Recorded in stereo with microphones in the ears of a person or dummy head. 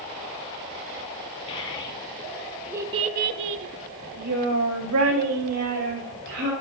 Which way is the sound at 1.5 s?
30° left (ahead or behind).